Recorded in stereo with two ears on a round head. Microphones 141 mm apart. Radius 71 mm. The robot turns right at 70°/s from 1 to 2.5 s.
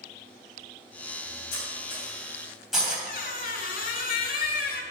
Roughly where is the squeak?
Left.